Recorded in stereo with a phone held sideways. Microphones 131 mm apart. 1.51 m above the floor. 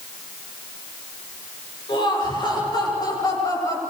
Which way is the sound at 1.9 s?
35° left (ahead or behind).